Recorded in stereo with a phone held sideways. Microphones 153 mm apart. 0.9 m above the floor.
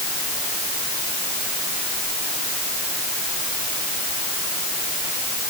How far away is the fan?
I don't hear a fan.